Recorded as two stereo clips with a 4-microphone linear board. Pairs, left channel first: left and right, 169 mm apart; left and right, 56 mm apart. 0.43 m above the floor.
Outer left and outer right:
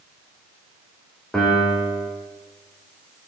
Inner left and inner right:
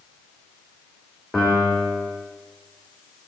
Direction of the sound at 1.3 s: Centre (ahead or behind).